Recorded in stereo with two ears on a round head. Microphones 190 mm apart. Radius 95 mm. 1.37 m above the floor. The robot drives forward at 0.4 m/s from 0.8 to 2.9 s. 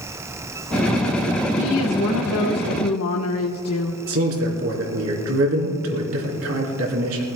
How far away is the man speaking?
About 4 m.